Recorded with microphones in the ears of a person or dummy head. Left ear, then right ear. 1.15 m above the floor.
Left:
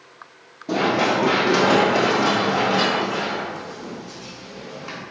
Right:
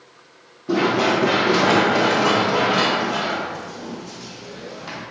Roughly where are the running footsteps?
Centre.